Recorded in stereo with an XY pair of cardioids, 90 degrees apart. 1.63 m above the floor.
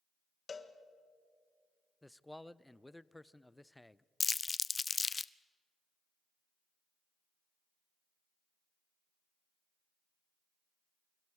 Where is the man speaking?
10° left, 0.5 m.